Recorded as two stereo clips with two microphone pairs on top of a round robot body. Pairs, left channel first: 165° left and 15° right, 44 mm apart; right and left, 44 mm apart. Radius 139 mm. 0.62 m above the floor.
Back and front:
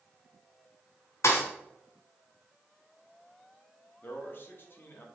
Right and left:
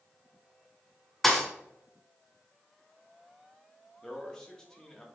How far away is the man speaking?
About 2 m.